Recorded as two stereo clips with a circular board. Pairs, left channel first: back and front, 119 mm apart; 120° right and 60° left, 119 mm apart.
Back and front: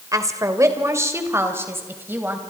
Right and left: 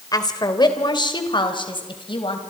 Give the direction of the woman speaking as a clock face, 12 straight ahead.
2 o'clock.